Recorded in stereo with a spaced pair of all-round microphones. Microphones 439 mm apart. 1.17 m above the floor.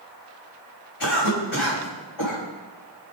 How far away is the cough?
About 4 m.